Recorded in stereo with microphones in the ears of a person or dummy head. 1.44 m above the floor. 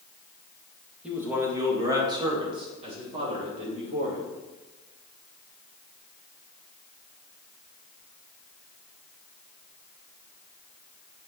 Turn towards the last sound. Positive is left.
turn(degrees=-45)  # may be behind; listen again after turning